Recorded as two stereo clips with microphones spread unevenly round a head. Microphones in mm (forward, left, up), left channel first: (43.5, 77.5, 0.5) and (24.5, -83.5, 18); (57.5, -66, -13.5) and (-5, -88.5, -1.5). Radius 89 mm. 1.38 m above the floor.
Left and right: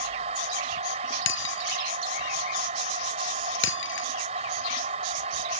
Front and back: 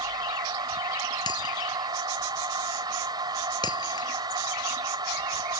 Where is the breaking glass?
80° left.